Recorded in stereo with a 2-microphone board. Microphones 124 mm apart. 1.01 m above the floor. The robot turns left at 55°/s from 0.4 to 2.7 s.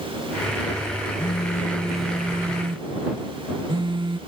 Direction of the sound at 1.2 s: 45° left.